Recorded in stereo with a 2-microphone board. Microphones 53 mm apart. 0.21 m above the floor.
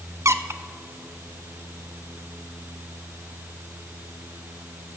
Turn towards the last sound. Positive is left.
turn(degrees=-65)  # may be behind; listen again after turning